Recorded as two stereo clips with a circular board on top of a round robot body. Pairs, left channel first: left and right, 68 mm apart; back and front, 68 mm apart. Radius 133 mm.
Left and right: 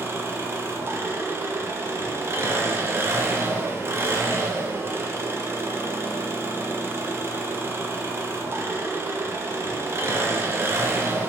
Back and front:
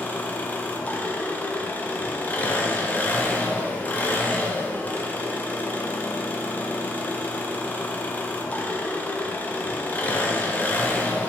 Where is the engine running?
125° right, 0.8 m.